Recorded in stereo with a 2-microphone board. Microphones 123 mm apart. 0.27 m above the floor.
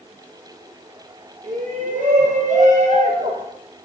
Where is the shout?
75° right (ahead or behind), 4.5 m; by 3.5 s 65° right (ahead or behind), 3 m.